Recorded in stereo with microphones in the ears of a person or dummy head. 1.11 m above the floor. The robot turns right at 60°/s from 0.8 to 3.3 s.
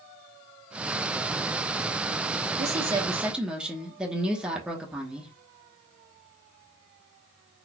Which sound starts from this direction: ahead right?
A woman speaking, at 2.6 s.